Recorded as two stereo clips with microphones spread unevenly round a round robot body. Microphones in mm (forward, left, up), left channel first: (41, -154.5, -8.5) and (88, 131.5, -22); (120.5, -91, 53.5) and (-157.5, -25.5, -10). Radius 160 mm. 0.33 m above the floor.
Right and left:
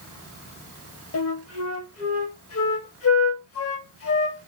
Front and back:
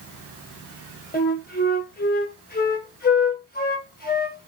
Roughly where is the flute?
Right.